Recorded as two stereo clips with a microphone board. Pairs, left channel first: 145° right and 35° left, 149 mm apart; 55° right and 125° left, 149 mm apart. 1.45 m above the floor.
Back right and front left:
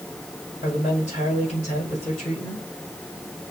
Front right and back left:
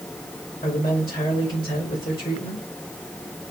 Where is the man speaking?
105° right, 4.5 m.